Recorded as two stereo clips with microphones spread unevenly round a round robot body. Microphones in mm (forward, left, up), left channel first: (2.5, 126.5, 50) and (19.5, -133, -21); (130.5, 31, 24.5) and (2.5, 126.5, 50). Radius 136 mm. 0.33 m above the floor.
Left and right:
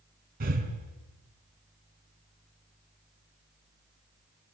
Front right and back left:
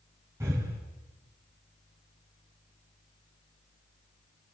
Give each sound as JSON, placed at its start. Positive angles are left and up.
{"t": 0.4, "sound": "breathing", "azimuth_deg": -135, "distance_m": 2.5}